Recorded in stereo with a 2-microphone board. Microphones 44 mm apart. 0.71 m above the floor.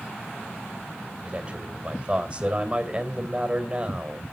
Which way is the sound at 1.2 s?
25° right (ahead or behind).